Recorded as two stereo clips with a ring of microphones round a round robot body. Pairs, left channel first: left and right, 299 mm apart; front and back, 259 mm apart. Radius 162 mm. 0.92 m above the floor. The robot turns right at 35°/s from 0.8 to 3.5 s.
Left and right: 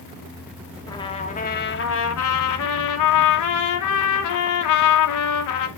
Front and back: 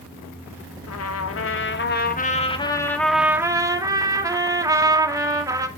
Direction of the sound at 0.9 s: 10° left.